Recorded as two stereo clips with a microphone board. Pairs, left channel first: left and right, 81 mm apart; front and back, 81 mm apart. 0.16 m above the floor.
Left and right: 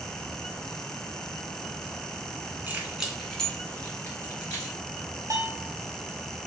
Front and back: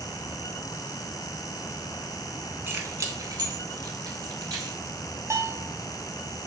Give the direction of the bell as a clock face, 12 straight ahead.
4 o'clock.